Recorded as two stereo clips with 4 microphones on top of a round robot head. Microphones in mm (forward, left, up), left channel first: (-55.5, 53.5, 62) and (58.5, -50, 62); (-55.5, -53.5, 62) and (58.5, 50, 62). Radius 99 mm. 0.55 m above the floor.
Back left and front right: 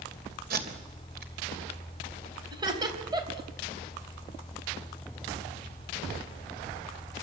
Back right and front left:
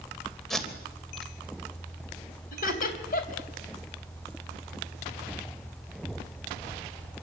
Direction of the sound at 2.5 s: 105° right.